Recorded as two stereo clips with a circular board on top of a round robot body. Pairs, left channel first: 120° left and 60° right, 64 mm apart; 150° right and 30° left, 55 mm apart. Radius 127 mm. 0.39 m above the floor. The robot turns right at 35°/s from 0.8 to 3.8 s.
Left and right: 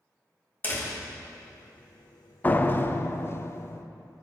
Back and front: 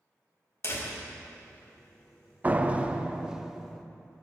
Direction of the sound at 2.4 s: 70° left.